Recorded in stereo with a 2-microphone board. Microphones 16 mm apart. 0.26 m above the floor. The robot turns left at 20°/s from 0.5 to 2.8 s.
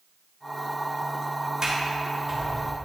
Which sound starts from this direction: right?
A sliding door, at 1.6 s.